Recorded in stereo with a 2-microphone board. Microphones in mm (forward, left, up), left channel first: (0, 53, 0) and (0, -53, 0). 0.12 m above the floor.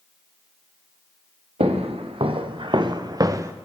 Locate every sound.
1.6 s footsteps: 65° right (ahead or behind), 1.7 m; by 3.5 s 25° right (ahead or behind), 1.0 m